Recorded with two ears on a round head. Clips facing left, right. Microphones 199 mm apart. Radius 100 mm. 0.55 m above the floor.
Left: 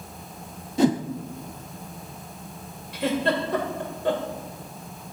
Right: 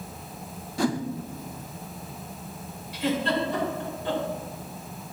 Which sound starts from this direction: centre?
A whoosh, at 0.8 s.